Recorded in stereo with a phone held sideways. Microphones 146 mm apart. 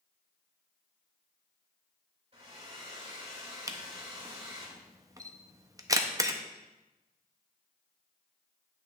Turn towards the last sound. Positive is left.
turn(degrees=-25)  # may be behind; listen again after turning